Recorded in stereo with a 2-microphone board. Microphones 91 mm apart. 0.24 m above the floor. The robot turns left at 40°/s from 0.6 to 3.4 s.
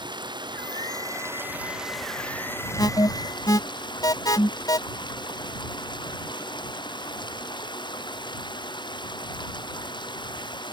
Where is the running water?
125° right; by 10.7 s 125° left.